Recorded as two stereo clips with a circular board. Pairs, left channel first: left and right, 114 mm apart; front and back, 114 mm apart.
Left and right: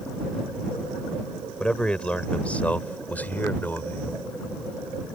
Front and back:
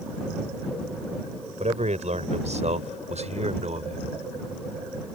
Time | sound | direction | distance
1.6 | a man speaking | 170° left | ?